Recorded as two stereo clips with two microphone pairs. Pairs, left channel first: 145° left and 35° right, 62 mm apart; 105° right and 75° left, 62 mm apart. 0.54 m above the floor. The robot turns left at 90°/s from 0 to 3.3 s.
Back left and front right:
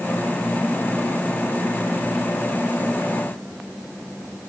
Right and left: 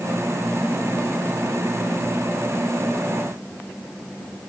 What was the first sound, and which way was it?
Only background noise.